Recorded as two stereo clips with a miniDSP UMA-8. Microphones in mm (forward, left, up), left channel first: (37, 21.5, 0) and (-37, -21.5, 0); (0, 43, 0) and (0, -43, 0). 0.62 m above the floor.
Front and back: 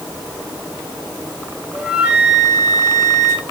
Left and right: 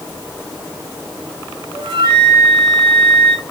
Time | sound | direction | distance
1.7 | a flute | 70° right | 3.5 m